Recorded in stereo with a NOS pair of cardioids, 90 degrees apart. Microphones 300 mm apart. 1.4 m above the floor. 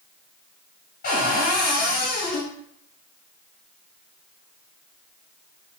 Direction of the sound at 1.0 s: 50° left.